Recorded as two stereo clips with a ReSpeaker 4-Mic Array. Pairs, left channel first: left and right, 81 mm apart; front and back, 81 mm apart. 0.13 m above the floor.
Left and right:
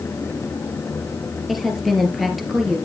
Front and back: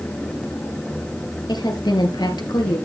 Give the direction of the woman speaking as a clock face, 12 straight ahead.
12 o'clock.